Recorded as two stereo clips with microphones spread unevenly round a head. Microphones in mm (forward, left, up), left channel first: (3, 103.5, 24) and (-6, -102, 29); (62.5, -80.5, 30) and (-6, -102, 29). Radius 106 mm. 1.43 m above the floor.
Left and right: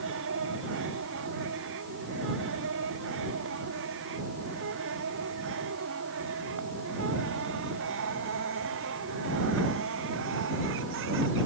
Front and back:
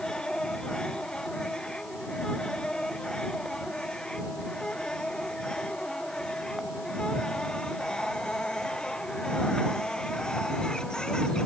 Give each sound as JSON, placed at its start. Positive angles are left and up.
{"t": 0.0, "sound": "a machine running", "azimuth_deg": -60}